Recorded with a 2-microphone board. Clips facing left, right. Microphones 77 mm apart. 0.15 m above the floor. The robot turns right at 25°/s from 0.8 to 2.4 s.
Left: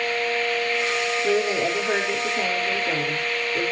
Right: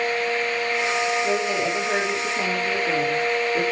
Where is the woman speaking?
20° left (ahead or behind), 4.5 m; by 3.6 s 5° right (ahead or behind), 4.5 m.